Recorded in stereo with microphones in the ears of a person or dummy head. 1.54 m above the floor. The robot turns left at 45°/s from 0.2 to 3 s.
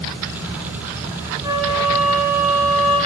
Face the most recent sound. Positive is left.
turn(degrees=135)